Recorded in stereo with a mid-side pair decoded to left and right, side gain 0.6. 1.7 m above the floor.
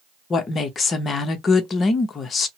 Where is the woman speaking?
40° left, 0.9 m.